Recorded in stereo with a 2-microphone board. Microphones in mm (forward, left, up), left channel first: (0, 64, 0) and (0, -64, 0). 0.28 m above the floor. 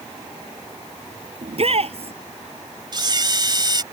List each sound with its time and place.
1.4 s a shout: 50° right (ahead or behind)
2.9 s a camera shutter: 35° right (ahead or behind)